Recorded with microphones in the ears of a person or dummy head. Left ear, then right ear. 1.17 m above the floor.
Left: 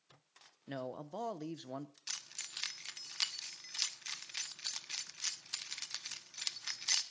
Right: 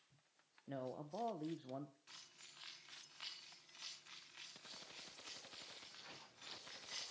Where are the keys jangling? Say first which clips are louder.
Left 15 dB; 70° left (ahead or behind), 1.3 m.